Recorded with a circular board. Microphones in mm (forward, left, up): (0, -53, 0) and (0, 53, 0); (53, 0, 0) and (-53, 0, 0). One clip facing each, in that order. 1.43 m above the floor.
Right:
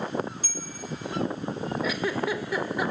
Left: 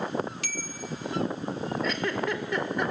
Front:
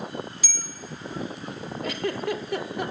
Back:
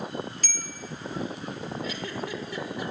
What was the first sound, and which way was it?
A bell, 85° left.